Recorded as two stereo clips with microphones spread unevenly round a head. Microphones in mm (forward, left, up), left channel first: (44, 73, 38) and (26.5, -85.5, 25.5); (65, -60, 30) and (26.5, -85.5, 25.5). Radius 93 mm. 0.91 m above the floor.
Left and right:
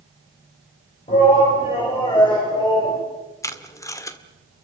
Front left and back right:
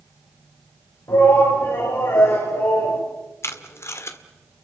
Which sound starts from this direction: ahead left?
A shout, at 1.1 s.